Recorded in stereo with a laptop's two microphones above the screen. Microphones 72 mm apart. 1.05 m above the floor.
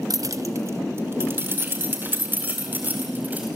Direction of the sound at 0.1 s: 55° right (ahead or behind).